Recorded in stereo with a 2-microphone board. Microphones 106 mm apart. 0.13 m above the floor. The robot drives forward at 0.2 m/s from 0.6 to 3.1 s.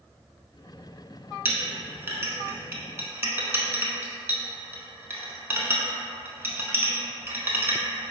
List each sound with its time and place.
1.4 s a clink: 20° right (ahead or behind), 0.7 m; by 8.1 s 25° right (ahead or behind), 0.6 m